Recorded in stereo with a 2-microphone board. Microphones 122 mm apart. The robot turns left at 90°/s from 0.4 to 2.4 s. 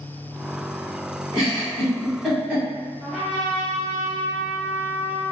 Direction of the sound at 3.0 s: 5° left (ahead or behind).